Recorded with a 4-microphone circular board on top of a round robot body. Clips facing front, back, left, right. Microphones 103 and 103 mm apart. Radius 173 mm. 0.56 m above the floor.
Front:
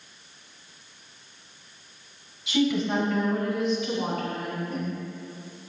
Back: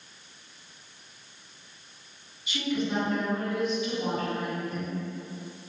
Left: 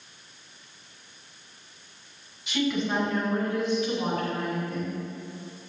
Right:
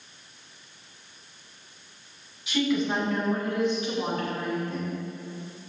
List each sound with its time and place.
2.5 s a woman speaking: 5° right, 5 m; by 5.0 s 25° right, 7 m